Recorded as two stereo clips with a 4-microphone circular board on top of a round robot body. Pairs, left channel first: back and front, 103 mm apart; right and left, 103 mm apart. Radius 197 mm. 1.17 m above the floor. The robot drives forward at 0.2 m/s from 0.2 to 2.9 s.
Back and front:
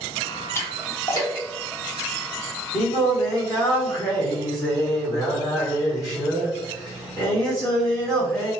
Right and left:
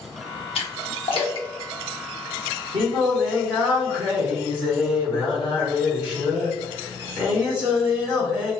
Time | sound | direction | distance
0.6 | a splash | 115° right | 0.8 m
2.7 | singing | 130° left | 1.1 m